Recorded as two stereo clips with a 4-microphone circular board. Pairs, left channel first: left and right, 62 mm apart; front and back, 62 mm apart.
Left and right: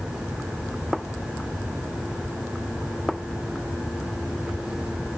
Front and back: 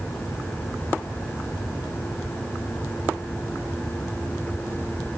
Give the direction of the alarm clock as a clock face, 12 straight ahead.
No alarm clock in this recording.